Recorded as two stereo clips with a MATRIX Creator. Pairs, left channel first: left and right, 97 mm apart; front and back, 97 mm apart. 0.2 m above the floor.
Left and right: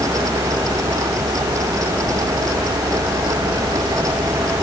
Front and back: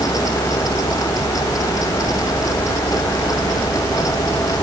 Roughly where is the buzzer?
No buzzer in this recording.